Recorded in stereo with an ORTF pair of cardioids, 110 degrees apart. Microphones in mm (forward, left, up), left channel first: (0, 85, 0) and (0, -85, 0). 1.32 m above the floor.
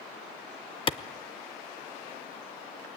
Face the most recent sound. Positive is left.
turn(degrees=30)